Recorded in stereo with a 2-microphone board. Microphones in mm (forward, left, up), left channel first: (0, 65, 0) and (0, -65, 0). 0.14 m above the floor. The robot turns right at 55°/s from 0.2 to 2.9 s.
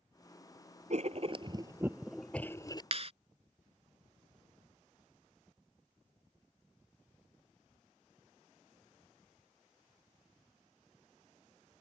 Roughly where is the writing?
Right.